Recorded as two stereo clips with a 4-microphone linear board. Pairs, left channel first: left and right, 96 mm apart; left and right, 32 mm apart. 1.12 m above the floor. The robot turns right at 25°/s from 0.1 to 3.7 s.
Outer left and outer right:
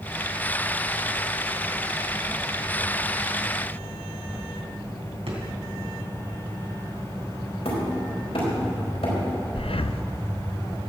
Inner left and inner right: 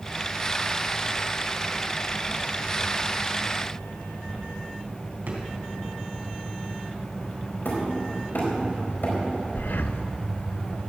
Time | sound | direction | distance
5.3 | a drawer | 75° right (ahead or behind) | 3 m
7.7 | hammering | 80° left | 4 m
9.6 | breathing | 70° left (ahead or behind) | 0.5 m